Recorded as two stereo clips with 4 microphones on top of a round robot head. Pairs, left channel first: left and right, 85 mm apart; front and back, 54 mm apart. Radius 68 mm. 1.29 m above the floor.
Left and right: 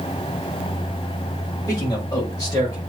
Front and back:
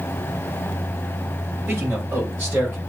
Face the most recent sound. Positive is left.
turn(degrees=130)